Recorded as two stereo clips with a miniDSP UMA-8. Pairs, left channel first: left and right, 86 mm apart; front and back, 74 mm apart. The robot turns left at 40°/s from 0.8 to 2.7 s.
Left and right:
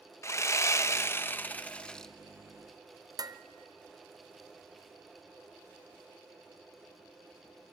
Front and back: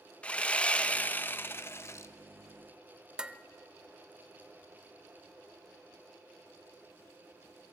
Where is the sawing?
60° left, 0.5 m; by 2.1 s 10° left, 0.5 m.